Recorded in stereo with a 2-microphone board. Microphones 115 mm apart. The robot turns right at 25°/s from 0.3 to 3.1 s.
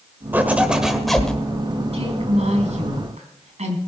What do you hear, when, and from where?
0.3 s a zipper: 15° right (ahead or behind), 1.3 m; by 1.3 s 5° left (ahead or behind), 1.3 m
1.9 s a woman speaking: 60° right (ahead or behind), 4 m; by 3.8 s 80° right, 4 m